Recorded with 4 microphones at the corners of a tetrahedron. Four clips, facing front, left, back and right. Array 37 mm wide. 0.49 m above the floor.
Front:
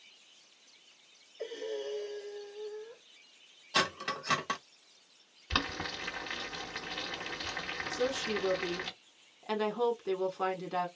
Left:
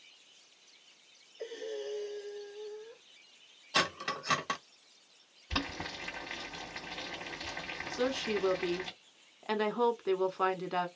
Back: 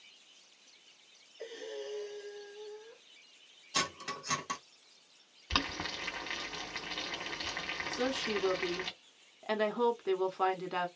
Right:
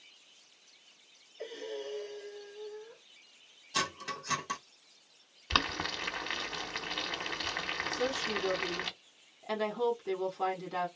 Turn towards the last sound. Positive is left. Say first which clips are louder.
# left 3 dB, front 1 dB
turn(degrees=120)